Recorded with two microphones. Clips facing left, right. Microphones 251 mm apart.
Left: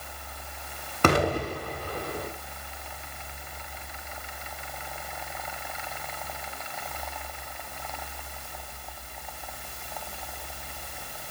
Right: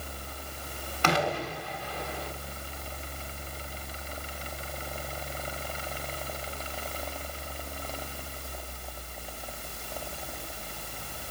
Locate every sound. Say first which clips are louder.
1.0 s an explosion: left 5 dB; 55° left (ahead or behind), 1.7 m